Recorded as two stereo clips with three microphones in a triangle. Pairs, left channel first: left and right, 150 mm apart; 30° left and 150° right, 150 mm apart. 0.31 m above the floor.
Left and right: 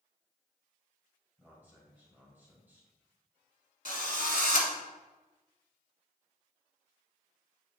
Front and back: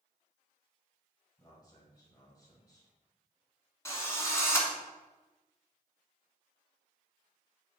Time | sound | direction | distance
1.4 | a man speaking | 20° right | 1.9 m
3.9 | a drill | 100° left | 1.5 m